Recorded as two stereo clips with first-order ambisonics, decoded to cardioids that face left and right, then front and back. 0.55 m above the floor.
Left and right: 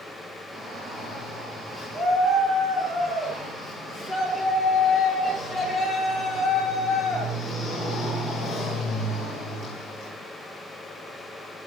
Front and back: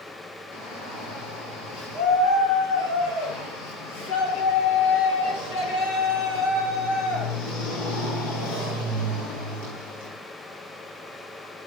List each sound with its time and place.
0.5 s a shout: 10° right, 9 m; by 10.2 s 20° left, 13 m